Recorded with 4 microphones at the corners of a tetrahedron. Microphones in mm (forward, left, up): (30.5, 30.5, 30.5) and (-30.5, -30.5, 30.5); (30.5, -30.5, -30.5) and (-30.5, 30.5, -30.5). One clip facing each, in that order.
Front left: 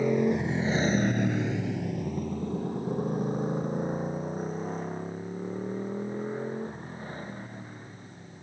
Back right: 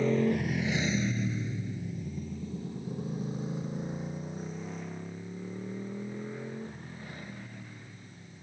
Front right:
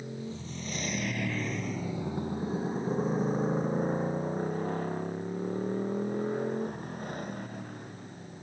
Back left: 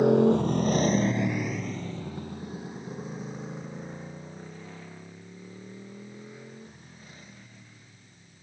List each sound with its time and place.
0.0 s a motorcycle: 125° left; by 8.4 s 10° right